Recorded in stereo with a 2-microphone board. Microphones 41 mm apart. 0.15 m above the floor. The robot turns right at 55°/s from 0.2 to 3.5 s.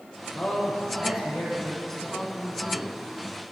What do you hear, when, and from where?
0.3 s a man speaking: 130° left, 5.5 m; by 1.8 s 150° right, 5.5 m
1.9 s a man speaking: 10° left (ahead or behind), 1.8 m; by 3.4 s 25° right (ahead or behind), 1.8 m